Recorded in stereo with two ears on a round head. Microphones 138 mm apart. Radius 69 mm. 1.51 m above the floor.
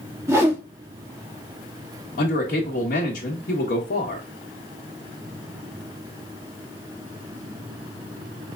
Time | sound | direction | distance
0.3 | a whoosh | 20° right (ahead or behind) | 1.2 m
2.2 | a man speaking | 60° left (ahead or behind) | 1.6 m